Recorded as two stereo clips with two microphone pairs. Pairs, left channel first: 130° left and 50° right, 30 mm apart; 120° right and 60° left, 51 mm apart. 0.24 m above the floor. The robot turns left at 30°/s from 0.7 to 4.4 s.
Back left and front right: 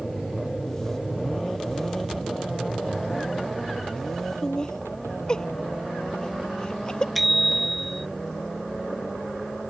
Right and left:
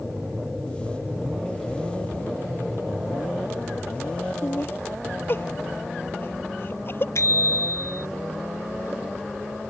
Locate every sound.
4.4 s laughter: 160° right
7.2 s a bicycle bell: 135° right